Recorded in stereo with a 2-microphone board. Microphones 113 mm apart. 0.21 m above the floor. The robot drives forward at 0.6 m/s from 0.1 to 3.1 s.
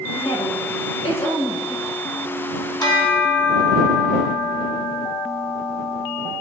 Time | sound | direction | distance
0.1 | a woman speaking | 65° left (ahead or behind) | 5 m
2.8 | a bell | 35° left (ahead or behind) | 2 m